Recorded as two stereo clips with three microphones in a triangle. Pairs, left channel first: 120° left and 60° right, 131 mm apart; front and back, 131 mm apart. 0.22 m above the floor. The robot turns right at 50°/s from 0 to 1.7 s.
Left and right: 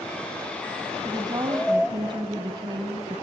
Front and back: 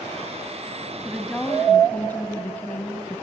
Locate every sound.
1.1 s a woman speaking: 100° right, 1.4 m; by 3.2 s 70° right, 1.4 m